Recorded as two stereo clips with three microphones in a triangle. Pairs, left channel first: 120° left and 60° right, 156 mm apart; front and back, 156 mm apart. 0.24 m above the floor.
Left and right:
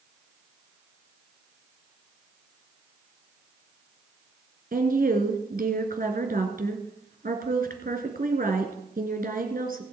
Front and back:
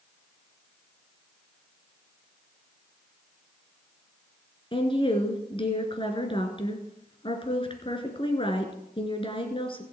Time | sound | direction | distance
4.7 | a woman speaking | 50° right | 2.5 m